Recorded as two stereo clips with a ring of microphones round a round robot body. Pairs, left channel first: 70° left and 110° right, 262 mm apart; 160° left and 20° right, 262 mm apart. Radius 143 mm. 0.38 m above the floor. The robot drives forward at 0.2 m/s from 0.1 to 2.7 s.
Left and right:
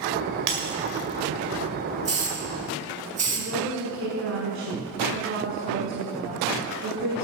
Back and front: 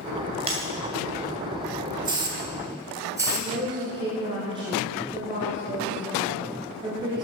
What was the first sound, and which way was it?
Breaking glass, 95° right.